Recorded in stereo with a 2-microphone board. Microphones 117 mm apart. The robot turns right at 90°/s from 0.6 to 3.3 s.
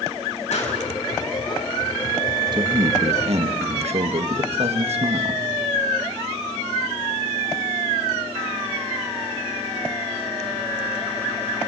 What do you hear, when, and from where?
0.5 s a pop: 75° left (ahead or behind), 7 m; by 0.8 s 85° left, 7 m
2.5 s a man speaking: 140° right, 1.6 m; by 5.4 s 70° right, 1.6 m